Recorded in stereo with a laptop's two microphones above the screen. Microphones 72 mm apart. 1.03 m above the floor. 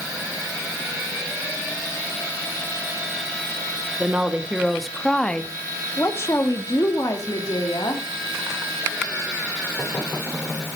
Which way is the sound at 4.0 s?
20° right (ahead or behind).